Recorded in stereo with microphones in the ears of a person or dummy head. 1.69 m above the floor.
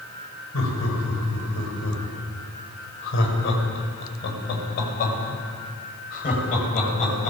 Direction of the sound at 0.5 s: 90° left.